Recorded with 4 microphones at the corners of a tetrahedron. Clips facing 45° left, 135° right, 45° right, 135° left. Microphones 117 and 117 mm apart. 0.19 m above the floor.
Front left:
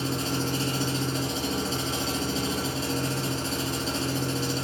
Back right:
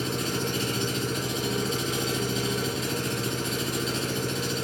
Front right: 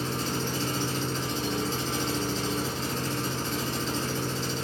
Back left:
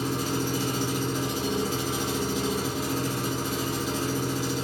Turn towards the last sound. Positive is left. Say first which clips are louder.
# front left 1 dB, back left 3 dB
turn(degrees=65)